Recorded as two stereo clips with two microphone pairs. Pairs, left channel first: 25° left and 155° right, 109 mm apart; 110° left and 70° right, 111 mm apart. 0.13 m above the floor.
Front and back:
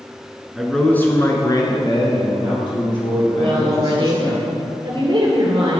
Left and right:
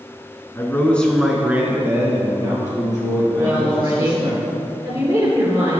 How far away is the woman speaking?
About 3 m.